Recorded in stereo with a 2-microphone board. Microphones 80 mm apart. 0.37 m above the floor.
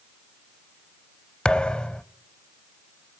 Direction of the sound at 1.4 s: 10° left (ahead or behind).